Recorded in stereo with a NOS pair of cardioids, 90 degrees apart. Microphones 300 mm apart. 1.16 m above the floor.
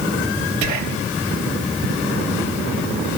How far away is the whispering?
About 1.7 m.